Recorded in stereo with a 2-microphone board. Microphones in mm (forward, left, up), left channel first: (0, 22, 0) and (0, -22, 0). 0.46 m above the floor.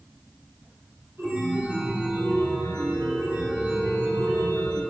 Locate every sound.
1.2 s a chime: 65° right (ahead or behind), 0.9 m